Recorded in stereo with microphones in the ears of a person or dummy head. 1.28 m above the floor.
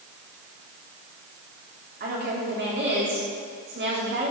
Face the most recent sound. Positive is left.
turn(degrees=-45)  # may be behind; listen again after turning